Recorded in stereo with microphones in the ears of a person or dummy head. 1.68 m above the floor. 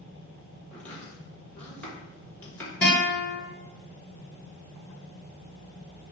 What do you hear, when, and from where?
0.7 s chopping: 10° left (ahead or behind), 1.5 m
2.8 s a guitar: 10° left (ahead or behind), 1.3 m